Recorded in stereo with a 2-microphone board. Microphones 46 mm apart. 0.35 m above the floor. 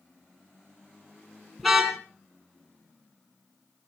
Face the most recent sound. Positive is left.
turn(degrees=0)  # may be behind; listen again after turning